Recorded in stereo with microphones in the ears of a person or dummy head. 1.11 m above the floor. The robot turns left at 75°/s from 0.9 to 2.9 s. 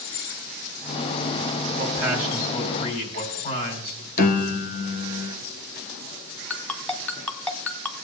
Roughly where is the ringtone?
Centre.